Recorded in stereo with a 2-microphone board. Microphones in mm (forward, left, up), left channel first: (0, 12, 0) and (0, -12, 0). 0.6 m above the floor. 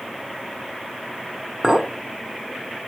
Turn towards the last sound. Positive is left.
turn(degrees=-30)  # may be behind; listen again after turning